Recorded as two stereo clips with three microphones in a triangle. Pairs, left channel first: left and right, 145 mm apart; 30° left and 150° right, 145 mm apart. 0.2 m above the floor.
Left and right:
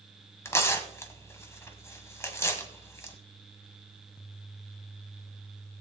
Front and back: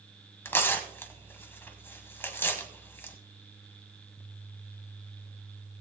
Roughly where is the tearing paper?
Left.